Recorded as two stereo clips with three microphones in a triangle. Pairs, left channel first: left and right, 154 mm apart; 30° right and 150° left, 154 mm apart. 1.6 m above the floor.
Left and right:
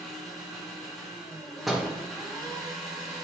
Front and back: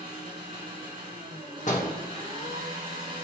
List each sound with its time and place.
0.0 s an engine running: straight behind, 2.5 m
1.7 s a door slam: straight ahead, 1.7 m